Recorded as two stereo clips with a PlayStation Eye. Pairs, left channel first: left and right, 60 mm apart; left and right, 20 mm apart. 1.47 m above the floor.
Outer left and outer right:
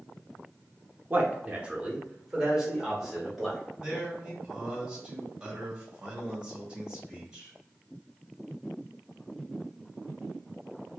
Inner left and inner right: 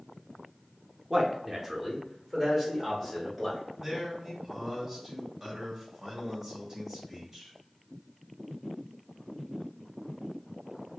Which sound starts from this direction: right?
A man speaking, at 1.1 s.